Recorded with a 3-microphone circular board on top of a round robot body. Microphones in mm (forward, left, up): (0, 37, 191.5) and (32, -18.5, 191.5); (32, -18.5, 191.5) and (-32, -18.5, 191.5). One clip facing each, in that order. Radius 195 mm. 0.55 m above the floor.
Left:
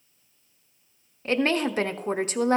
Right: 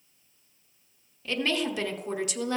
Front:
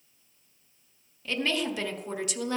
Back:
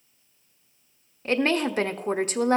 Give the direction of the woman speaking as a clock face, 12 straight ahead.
7 o'clock.